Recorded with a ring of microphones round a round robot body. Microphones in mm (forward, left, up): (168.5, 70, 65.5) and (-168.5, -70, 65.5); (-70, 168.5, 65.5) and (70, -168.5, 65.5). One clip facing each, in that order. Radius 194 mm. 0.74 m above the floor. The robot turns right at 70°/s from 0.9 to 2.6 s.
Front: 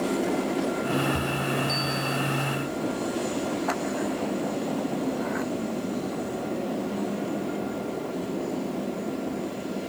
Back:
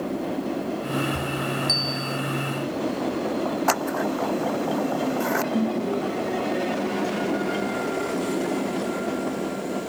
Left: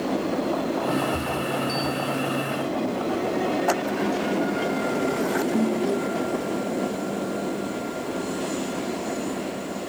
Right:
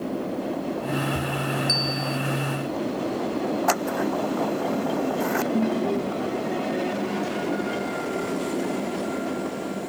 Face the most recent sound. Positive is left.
turn(degrees=-160)